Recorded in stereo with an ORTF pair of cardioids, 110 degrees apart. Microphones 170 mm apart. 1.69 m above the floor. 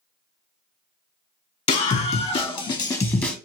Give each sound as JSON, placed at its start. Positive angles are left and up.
{"t": 1.7, "sound": "a scream", "azimuth_deg": 45, "distance_m": 1.4}